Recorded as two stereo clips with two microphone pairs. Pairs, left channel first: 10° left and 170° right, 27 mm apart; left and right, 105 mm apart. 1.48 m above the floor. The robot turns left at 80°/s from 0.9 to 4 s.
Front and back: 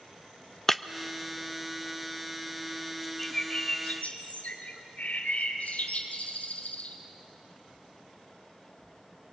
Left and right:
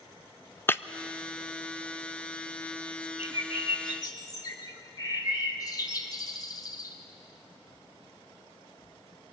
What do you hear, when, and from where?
0.7 s breaking glass: 80° left, 0.5 m
3.2 s a bird: 100° left, 3 m; by 7.0 s 35° left, 3 m